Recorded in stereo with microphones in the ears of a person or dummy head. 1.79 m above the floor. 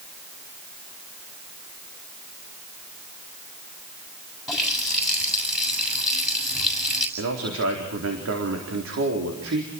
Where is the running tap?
Centre (ahead or behind), 7 m.